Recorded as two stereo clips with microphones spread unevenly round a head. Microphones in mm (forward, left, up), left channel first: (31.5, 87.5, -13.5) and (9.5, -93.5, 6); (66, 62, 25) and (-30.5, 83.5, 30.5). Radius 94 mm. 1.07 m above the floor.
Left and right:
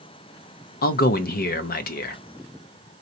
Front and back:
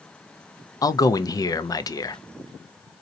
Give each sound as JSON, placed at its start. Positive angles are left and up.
{"t": 0.8, "sound": "a man speaking", "azimuth_deg": 45, "distance_m": 0.5}